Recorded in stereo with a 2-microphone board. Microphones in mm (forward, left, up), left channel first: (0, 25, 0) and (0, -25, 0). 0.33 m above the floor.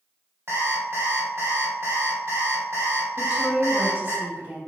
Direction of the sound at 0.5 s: 55° right (ahead or behind).